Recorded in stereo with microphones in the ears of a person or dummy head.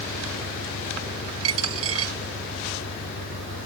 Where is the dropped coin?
80° right.